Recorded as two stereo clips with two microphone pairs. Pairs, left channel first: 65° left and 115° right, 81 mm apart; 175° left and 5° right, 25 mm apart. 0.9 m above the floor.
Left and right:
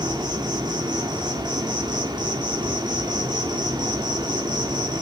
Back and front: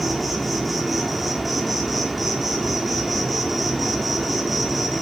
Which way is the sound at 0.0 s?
90° right.